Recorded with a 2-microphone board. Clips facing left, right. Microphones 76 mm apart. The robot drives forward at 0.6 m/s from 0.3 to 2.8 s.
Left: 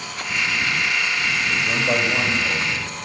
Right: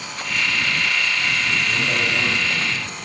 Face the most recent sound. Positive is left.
turn(degrees=50)  # may be behind; listen again after turning